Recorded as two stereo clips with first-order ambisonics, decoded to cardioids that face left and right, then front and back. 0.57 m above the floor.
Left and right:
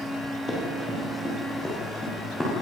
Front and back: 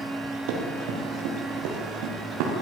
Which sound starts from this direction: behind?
Running footsteps, at 0.5 s.